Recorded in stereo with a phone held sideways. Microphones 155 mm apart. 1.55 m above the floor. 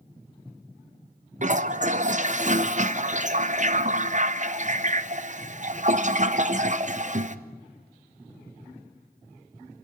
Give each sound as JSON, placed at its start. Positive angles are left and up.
{"t": 1.4, "sound": "a toilet flushing", "side_deg": -50, "distance_m": 0.8}